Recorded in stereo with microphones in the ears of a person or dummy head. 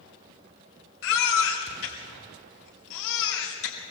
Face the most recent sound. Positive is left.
turn(degrees=75)  # may be behind; listen again after turning